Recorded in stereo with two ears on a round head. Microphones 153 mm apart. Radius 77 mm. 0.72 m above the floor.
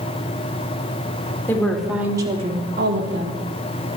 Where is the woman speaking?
10° left (ahead or behind), 1.6 m; by 3.4 s 75° right (ahead or behind), 1.7 m.